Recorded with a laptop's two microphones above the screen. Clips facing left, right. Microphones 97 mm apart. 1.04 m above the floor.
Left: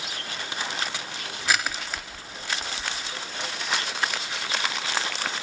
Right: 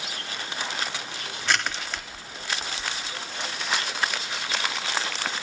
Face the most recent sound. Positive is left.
turn(degrees=5)  # may be behind; listen again after turning